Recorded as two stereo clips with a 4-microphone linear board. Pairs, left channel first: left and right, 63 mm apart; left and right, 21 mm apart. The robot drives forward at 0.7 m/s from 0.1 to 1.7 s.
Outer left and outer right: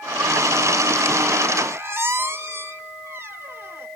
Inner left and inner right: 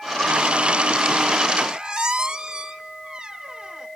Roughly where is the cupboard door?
I don't hear a cupboard door.